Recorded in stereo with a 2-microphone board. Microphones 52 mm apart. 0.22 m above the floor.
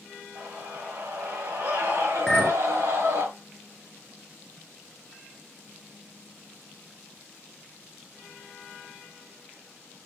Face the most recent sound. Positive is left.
turn(degrees=5)  # may be behind; listen again after turning